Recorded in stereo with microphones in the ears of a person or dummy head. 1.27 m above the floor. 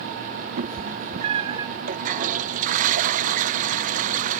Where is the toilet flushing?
45° right (ahead or behind).